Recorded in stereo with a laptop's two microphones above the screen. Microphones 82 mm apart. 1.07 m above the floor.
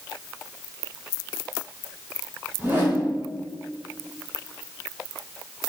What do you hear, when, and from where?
2.6 s a whoosh: 25° right (ahead or behind), 3 m